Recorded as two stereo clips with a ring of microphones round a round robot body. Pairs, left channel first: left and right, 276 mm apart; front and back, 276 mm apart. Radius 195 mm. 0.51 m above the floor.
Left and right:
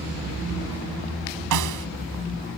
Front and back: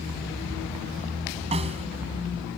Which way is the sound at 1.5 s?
105° right.